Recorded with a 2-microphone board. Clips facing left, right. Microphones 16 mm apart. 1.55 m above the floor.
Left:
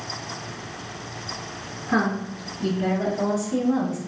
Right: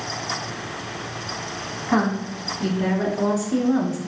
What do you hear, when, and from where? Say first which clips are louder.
1.9 s a woman speaking: right 1 dB; 65° right (ahead or behind), 1.8 m; by 4.0 s 25° right (ahead or behind), 0.7 m